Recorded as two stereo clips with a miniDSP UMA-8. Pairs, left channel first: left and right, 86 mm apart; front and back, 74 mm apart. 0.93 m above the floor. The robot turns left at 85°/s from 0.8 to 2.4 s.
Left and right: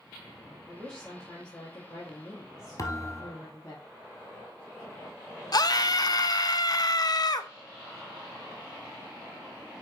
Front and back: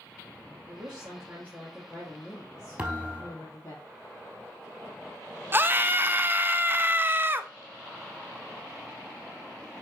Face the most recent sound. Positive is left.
turn(degrees=125)